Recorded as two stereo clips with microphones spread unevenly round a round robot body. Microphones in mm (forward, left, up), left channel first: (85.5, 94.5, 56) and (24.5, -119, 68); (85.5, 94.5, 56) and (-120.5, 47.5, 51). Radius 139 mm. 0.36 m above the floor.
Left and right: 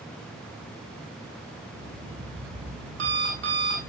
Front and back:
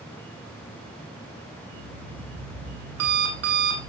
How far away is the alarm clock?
About 8 m.